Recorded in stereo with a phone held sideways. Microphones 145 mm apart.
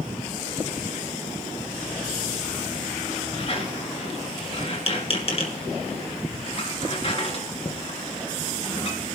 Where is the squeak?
40° left (ahead or behind), 2 m.